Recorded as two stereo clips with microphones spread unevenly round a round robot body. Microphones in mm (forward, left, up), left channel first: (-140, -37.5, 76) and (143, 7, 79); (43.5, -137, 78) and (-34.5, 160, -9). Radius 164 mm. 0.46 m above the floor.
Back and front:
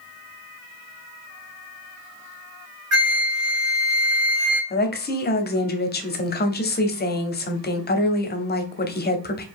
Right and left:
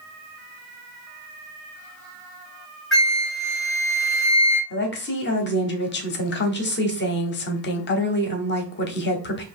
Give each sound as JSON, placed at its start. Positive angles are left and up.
{"t": 2.9, "sound": "a flute", "azimuth_deg": 25, "distance_m": 1.9}
{"t": 4.7, "sound": "a woman speaking", "azimuth_deg": -135, "distance_m": 0.9}